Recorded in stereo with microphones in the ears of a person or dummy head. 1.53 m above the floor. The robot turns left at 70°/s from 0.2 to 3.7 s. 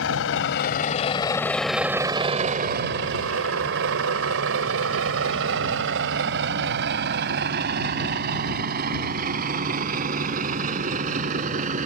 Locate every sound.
0.0 s a vehicle: 85° left; by 11.9 s 40° right (ahead or behind)